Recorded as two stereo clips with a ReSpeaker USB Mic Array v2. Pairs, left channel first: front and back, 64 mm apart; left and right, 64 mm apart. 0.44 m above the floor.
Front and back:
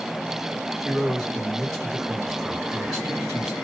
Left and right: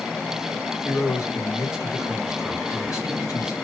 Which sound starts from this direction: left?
A man speaking, at 0.8 s.